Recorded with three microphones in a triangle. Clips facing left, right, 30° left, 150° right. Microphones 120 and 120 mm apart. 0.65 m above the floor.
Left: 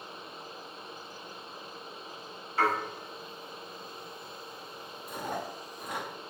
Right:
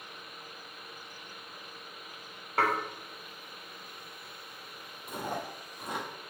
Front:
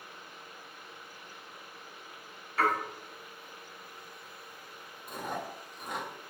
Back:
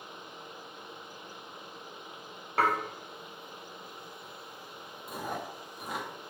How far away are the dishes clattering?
About 1.6 m.